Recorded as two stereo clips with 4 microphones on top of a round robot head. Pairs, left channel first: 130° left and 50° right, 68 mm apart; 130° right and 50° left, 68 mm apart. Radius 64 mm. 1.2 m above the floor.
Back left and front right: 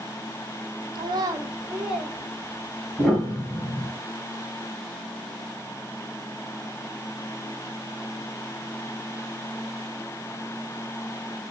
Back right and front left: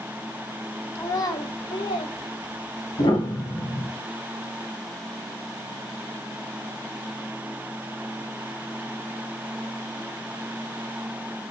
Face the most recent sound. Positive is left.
turn(degrees=-140)